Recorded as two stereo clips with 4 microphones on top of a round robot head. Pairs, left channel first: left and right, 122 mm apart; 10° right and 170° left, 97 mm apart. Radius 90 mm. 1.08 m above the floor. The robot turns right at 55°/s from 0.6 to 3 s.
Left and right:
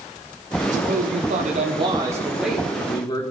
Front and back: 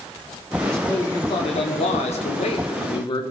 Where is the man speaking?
100° right, 3 m; by 3.2 s 30° left, 3 m.